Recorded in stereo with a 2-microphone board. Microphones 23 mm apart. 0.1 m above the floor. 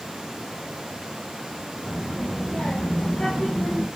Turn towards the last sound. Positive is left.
turn(degrees=55)  # may be behind; listen again after turning